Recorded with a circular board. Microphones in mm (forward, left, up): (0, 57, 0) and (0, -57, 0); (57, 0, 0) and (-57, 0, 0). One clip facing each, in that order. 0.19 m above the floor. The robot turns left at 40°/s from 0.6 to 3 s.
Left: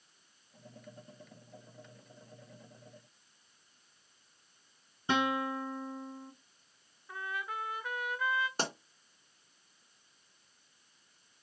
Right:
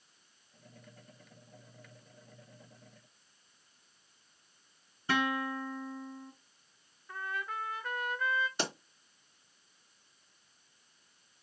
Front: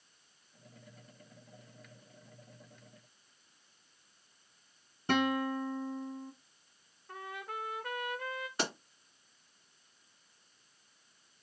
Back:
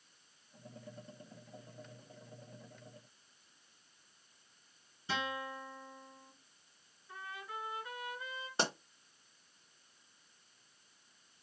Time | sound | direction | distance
5.1 | a guitar | 20° left | 0.6 m
7.1 | a trumpet | 10° left | 0.7 m
8.6 | a pop | 125° left | 2 m